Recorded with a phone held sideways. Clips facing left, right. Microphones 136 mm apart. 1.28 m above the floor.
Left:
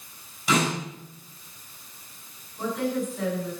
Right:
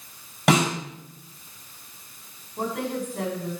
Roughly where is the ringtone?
I don't hear a ringtone.